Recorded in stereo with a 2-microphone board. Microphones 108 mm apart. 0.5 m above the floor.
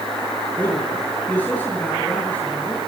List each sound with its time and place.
0.6 s a man speaking: 15° left (ahead or behind), 7 m